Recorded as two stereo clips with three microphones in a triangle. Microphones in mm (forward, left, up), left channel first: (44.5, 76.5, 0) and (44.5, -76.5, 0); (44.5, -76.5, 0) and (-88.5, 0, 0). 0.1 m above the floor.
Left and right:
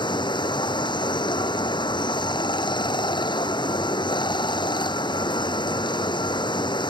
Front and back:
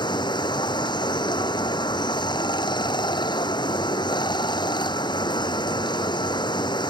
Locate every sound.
0.0 s running water: 30° left